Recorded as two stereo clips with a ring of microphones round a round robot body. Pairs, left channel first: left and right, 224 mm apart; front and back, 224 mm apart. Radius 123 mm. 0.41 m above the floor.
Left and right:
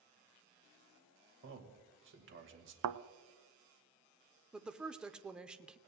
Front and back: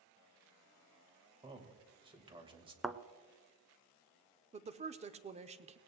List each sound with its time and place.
1.4 s a man speaking: 115° right, 2.5 m
2.8 s a thud: 90° right, 0.6 m
4.5 s a woman speaking: 170° right, 0.8 m